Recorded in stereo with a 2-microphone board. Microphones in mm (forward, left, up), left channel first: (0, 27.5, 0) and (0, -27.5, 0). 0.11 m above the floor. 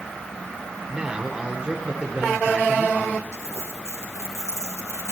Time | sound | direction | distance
0.9 | a man speaking | 15° right (ahead or behind) | 1.5 m
3.3 | crumpling | 60° left (ahead or behind) | 4 m